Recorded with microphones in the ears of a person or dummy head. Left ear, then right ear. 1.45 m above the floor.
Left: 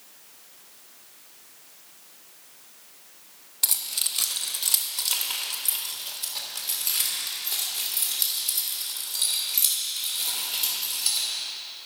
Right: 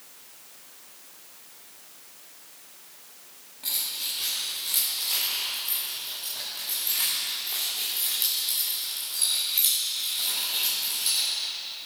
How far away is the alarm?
I don't hear an alarm.